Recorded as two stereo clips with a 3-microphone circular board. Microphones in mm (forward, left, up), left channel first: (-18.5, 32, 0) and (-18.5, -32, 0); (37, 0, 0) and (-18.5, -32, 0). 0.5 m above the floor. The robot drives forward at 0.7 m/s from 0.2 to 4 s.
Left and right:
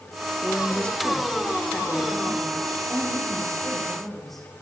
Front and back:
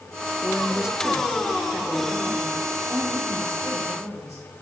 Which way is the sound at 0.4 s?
95° left.